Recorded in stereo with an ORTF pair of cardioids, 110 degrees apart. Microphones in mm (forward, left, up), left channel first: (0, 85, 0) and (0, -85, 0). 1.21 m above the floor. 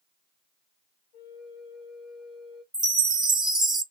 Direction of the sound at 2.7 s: 5° right.